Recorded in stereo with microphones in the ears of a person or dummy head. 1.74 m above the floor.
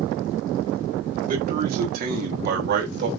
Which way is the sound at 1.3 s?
55° right (ahead or behind).